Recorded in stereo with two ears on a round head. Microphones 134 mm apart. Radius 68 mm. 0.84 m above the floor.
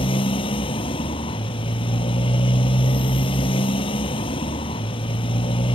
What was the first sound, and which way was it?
A motorcycle, 35° left (ahead or behind).